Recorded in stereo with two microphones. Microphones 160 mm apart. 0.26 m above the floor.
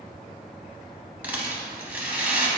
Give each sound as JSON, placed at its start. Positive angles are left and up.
{"t": 1.2, "sound": "a rattle", "side_deg": -10, "distance_m": 0.5}